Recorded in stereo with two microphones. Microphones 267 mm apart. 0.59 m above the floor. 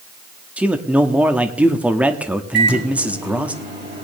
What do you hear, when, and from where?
0.6 s a man speaking: 5° right (ahead or behind), 0.9 m
2.5 s a microwave: 40° right (ahead or behind), 3 m